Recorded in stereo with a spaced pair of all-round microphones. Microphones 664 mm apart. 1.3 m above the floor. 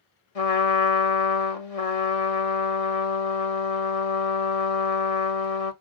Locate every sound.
0.3 s a trumpet: 55° left (ahead or behind), 1.0 m